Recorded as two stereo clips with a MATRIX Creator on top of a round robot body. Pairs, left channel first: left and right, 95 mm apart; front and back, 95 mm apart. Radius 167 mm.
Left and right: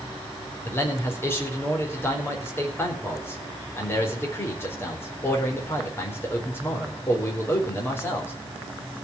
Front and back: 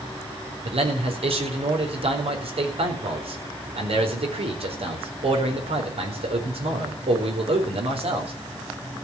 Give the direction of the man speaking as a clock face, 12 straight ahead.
7 o'clock.